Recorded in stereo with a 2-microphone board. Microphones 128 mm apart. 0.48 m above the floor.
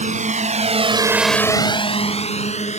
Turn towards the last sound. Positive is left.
turn(degrees=60)  # may be behind; listen again after turning